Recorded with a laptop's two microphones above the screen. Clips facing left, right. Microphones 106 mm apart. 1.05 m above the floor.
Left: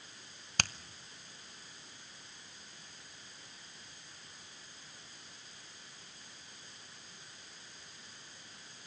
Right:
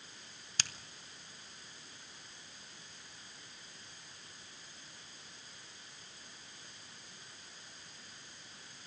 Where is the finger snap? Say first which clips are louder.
Left 8 dB; 55° left (ahead or behind), 0.9 m.